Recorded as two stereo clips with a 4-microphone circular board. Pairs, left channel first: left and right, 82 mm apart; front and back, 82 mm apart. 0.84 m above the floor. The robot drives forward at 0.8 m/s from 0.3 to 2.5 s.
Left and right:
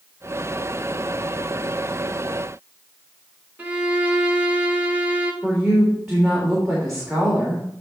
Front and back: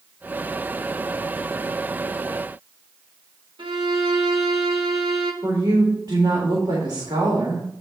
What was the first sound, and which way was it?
A violin, 160° right.